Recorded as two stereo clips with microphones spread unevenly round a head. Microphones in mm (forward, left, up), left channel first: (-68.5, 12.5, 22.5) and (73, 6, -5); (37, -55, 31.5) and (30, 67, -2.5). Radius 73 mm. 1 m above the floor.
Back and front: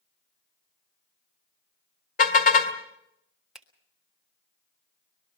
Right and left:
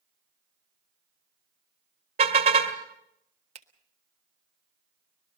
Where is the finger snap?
80° left, 1.5 m.